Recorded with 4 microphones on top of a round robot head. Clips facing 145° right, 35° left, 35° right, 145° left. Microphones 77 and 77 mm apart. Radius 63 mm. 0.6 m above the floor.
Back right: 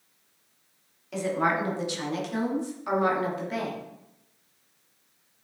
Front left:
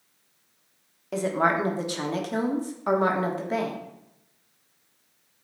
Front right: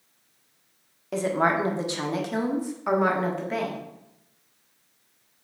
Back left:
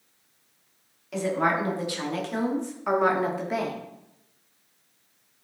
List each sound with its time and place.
1.1 s a woman speaking: straight ahead, 1.5 m; by 3.8 s 80° left, 1.5 m